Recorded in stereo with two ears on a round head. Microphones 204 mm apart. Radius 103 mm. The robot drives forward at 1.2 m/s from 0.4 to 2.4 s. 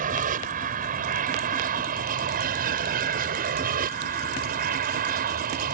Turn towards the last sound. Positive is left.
turn(degrees=-35)  # may be behind; listen again after turning